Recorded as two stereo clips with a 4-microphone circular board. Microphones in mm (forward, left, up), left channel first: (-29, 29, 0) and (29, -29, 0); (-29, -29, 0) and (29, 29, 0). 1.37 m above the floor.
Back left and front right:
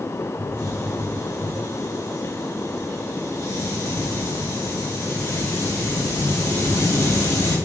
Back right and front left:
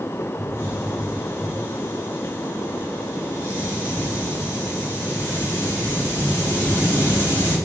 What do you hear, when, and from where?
0.4 s a hiss: 170° left, 3.5 m